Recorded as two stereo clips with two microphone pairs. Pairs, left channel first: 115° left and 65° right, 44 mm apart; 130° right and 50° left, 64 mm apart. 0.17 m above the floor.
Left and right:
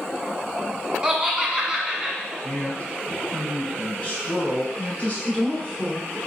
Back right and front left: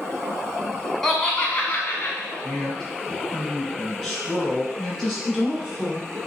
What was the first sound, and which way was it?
Laughter, 45° right.